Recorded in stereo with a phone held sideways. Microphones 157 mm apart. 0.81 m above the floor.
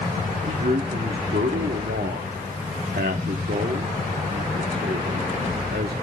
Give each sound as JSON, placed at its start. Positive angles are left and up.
{"t": 0.5, "sound": "a man speaking", "side_deg": -75, "distance_m": 1.4}